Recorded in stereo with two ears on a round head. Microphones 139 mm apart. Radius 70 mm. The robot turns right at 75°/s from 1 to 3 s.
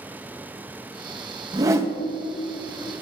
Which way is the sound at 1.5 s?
50° right.